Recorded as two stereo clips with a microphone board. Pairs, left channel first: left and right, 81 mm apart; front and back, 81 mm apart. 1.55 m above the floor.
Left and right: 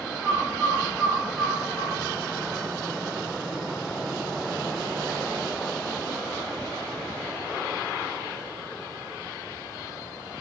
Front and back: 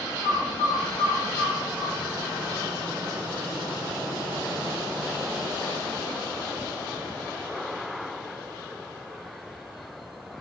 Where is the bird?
25° left, 0.9 m.